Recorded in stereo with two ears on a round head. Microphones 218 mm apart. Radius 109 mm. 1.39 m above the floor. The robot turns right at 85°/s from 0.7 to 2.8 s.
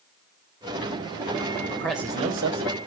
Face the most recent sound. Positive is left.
turn(degrees=-105)